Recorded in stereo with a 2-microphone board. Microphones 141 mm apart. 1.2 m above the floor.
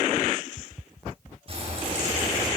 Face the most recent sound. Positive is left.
turn(degrees=-40)  # may be behind; listen again after turning